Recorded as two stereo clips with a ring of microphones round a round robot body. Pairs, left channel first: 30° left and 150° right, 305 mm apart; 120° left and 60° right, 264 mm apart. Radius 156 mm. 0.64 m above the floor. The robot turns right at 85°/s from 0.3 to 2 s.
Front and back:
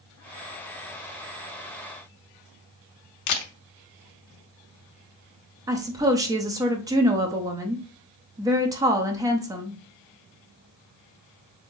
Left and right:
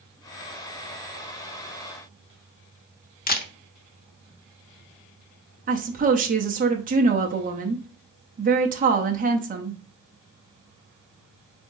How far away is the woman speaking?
About 0.8 m.